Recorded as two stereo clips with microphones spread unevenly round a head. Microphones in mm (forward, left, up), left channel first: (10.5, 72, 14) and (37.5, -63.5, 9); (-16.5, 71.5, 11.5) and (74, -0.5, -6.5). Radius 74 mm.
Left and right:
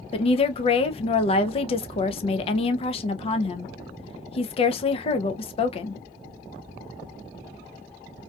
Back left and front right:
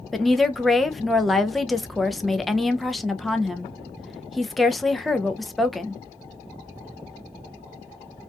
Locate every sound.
0.1 s a woman speaking: 50° left, 0.5 m